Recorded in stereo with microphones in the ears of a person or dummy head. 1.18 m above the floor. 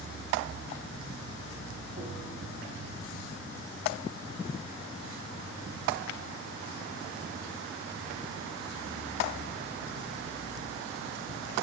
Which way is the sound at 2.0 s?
35° right (ahead or behind).